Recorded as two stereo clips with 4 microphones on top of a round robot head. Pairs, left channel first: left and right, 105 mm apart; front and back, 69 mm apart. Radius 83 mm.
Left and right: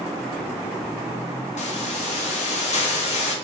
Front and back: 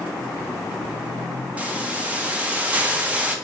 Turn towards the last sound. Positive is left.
turn(degrees=105)